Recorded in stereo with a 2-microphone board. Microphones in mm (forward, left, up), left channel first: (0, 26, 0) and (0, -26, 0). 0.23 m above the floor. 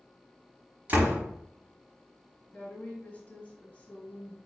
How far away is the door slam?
About 1.1 m.